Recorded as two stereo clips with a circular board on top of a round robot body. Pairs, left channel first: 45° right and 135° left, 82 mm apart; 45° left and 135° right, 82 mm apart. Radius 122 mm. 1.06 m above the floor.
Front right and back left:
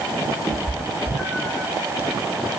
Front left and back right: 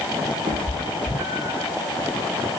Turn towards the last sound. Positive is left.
turn(degrees=-120)